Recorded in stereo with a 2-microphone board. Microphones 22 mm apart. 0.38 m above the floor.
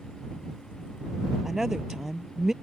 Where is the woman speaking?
25° right (ahead or behind).